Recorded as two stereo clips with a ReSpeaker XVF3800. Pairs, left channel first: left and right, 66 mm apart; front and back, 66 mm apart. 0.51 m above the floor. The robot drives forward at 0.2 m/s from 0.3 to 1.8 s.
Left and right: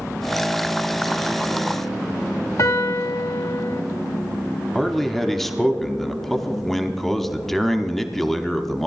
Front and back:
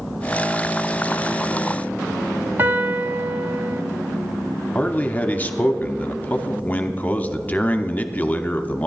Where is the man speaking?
10° left, 0.7 m.